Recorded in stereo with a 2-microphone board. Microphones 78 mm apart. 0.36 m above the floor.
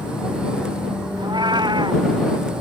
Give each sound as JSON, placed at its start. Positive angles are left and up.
{"t": 1.2, "sound": "a cat meowing", "side_deg": -70}